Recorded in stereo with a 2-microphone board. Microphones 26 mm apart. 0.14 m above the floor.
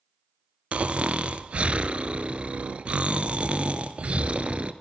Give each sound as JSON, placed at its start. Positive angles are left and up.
{"t": 0.7, "sound": "snoring", "side_deg": -55, "distance_m": 0.8}